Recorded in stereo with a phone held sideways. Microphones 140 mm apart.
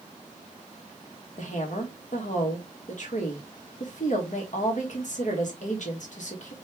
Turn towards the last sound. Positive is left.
turn(degrees=60)  # may be behind; listen again after turning